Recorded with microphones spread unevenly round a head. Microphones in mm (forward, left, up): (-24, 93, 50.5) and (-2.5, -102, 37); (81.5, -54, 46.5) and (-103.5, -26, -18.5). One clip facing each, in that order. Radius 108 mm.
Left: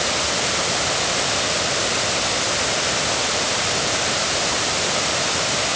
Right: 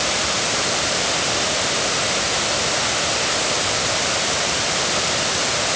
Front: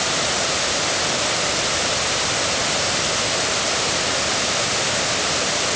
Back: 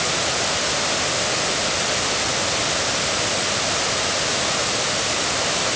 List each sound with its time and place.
Only background noise.